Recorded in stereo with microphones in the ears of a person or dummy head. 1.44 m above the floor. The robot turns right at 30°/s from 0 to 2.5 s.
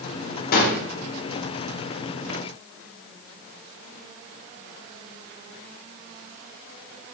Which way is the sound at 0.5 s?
55° left (ahead or behind).